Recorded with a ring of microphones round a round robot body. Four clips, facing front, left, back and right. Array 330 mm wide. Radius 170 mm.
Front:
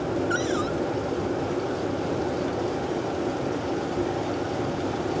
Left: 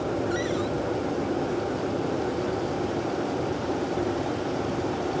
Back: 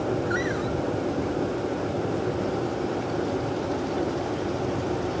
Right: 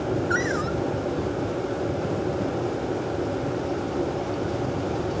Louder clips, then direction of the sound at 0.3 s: Right 2 dB, front 1 dB; 40° right.